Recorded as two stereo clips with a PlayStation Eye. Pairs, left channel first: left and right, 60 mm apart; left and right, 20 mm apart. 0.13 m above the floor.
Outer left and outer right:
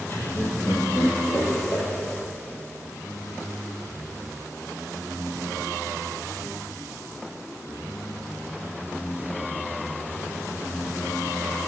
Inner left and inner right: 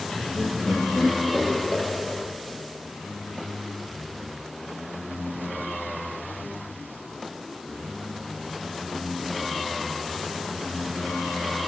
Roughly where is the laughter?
Left.